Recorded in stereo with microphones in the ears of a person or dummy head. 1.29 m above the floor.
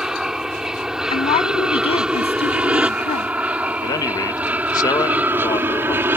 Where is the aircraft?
Centre (ahead or behind); by 6.2 s 10° right (ahead or behind).